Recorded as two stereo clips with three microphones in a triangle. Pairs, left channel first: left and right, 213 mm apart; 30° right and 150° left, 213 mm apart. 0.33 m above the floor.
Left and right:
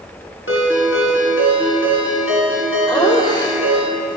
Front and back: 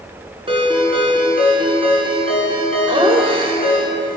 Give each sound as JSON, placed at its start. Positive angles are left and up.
{"t": 0.5, "sound": "a ringtone", "azimuth_deg": 85, "distance_m": 2.5}
{"t": 2.9, "sound": "laughter", "azimuth_deg": 130, "distance_m": 0.9}